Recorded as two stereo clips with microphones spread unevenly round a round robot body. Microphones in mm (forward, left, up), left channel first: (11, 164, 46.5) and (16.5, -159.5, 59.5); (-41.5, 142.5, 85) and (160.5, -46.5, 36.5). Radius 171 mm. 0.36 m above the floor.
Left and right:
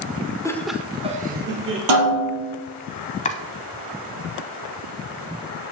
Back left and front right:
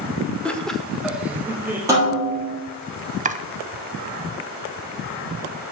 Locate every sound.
0.5 s laughter: 35° left, 0.8 m; by 1.8 s 105° right, 1.0 m
1.9 s a snare drum: 125° right, 3 m
3.2 s chopping: 20° left, 0.6 m